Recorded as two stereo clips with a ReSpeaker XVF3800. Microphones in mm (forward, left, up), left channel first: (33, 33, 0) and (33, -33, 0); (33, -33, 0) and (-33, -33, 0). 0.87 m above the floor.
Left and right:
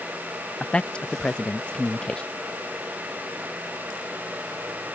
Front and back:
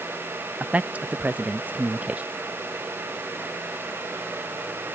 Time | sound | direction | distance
0.6 | a man speaking | 145° left | ?